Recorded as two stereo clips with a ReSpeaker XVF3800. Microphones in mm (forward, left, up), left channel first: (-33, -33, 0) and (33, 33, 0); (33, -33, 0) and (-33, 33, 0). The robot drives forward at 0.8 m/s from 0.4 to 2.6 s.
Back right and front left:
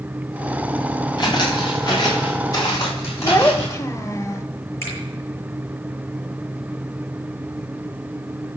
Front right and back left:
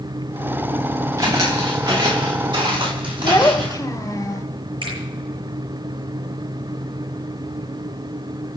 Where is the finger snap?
165° left, 7 m.